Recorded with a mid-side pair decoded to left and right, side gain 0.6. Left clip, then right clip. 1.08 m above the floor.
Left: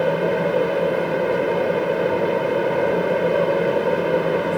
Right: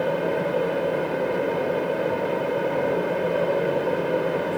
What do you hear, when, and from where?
0.0 s a fan: 40° left, 0.9 m